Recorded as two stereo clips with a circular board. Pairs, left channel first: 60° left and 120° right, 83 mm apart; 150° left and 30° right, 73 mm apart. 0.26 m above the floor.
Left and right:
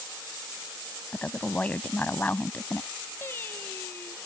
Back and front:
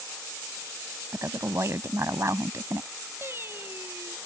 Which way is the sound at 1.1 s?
5° right.